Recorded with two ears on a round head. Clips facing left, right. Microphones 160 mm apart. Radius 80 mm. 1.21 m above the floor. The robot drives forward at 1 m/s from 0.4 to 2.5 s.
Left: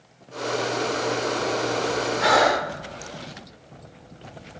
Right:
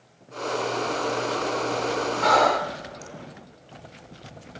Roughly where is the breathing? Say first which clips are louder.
Even; centre.